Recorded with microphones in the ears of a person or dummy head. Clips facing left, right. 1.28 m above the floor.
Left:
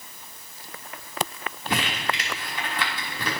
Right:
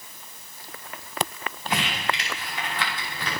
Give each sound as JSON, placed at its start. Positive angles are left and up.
{"t": 1.7, "sound": "crumpling", "side_deg": 80, "distance_m": 3.0}